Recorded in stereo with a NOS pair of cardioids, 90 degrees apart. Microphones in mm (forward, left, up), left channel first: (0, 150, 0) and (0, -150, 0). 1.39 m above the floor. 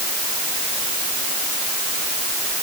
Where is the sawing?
I don't hear sawing.